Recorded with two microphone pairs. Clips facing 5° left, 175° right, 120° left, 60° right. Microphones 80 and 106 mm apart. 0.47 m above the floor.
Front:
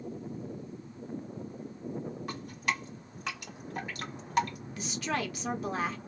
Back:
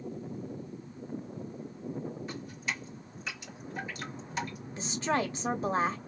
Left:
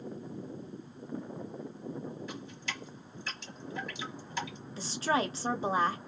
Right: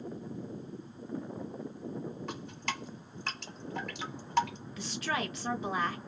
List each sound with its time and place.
2.3 s dripping: 25° right, 1.6 m
4.8 s a woman speaking: 150° left, 0.9 m